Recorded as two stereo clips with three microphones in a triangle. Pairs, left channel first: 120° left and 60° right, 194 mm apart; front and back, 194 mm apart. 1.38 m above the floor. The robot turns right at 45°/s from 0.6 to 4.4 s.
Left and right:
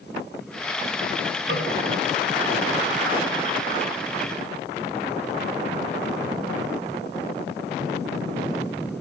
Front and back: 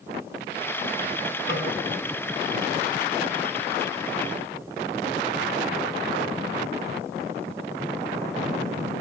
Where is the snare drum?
25° right, 1.5 m; by 1.7 s 15° right, 1.5 m.